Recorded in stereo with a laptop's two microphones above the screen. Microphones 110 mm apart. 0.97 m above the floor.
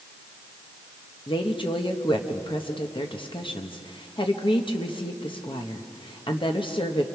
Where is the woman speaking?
50° left (ahead or behind), 1.1 m.